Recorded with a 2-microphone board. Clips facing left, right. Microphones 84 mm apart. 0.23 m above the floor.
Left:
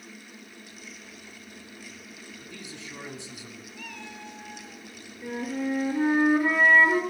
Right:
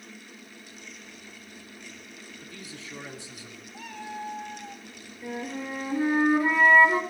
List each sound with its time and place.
2.4 s a man speaking: 25° left (ahead or behind), 2 m
3.7 s a cat meowing: 35° right (ahead or behind), 1.3 m
5.2 s a flute: 20° left (ahead or behind), 2 m